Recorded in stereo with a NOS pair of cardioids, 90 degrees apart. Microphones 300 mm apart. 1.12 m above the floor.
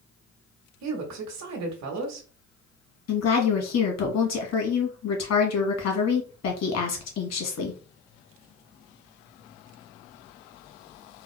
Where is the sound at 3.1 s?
60° left, 1.8 m.